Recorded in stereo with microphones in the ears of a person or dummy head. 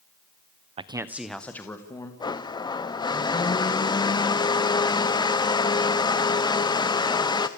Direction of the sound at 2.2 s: 25° left (ahead or behind).